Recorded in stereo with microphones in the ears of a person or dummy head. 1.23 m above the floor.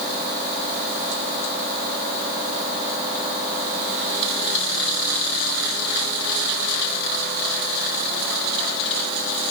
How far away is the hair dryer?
No hair dryer in this recording.